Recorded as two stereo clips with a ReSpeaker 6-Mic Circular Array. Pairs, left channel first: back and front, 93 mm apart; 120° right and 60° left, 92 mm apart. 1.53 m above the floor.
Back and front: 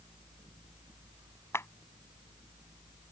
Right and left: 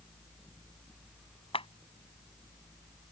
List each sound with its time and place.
1.5 s a clap: 120° right